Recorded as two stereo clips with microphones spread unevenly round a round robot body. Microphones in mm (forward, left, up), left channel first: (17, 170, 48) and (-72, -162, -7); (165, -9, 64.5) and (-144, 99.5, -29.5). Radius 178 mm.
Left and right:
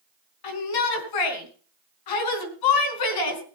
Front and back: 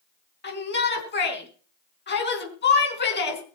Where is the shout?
45° left, 5 m.